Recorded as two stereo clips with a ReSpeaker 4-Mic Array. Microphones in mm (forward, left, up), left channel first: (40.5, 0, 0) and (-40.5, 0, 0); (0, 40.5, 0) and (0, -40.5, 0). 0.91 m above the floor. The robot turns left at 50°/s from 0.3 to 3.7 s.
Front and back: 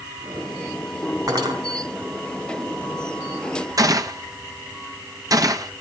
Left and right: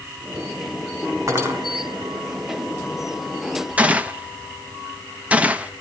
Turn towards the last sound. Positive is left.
turn(degrees=-160)